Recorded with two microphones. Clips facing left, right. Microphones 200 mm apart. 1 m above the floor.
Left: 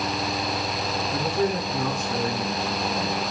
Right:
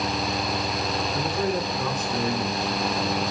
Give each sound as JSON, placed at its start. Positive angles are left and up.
{"t": 1.1, "sound": "a man speaking", "side_deg": 60, "distance_m": 8.0}